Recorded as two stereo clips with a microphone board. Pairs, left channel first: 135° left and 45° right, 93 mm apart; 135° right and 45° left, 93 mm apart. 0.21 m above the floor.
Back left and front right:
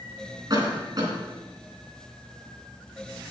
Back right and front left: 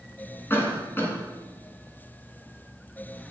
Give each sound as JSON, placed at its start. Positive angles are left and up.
{"t": 0.5, "sound": "a cough", "azimuth_deg": -75, "distance_m": 3.0}